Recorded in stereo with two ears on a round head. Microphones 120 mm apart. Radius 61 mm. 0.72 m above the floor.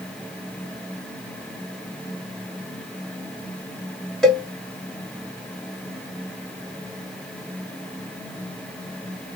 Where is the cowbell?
5° left (ahead or behind), 1.8 m.